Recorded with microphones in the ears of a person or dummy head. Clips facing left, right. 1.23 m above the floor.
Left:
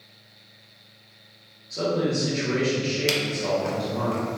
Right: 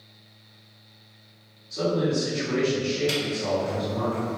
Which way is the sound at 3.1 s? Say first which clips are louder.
Left 1 dB; 85° left.